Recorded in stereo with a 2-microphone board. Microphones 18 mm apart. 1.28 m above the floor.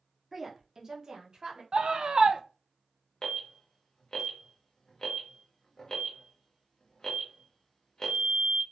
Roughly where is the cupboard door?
No cupboard door in this recording.